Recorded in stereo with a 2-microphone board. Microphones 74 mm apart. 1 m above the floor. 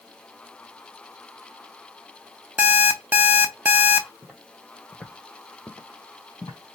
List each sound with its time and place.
2.6 s an alarm clock: 25° right (ahead or behind), 0.6 m
4.2 s footsteps: 10° right (ahead or behind), 1.9 m; by 6.6 s 35° left (ahead or behind), 2 m